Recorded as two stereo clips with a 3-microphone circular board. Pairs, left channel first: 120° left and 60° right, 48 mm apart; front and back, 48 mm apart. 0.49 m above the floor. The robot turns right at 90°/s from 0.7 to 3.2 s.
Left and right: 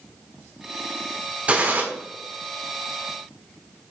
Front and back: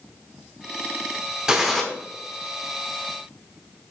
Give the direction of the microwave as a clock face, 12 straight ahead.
I don't hear a microwave.